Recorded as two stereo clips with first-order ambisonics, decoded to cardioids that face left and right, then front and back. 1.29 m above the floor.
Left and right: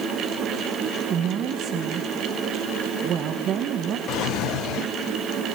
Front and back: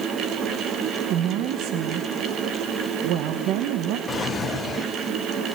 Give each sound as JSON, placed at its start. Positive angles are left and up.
{"t": 1.1, "sound": "a woman speaking", "azimuth_deg": -145, "distance_m": 1.3}
{"t": 4.1, "sound": "a drawer", "azimuth_deg": 65, "distance_m": 0.8}